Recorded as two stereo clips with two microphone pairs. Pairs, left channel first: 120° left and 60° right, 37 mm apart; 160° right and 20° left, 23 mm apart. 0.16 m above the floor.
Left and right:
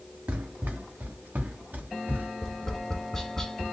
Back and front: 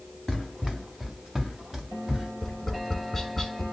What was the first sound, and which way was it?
Running footsteps, 70° right.